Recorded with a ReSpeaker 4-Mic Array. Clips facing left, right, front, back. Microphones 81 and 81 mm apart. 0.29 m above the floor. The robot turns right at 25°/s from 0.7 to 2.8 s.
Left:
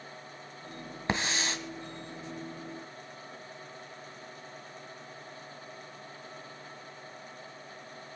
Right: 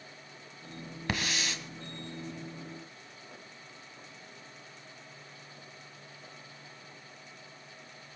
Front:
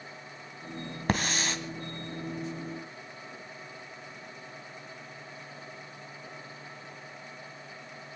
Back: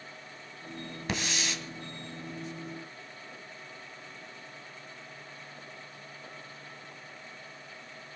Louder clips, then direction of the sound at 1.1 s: Left 3 dB, front 5 dB; 30° left.